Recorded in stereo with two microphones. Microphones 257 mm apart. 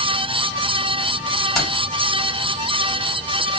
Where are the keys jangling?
Centre (ahead or behind), 1.5 m.